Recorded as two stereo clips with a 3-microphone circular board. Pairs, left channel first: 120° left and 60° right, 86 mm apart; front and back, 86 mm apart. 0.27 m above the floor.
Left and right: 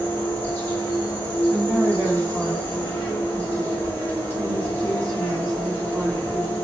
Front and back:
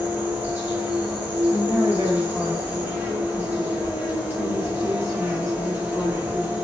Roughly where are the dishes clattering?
I don't hear dishes clattering.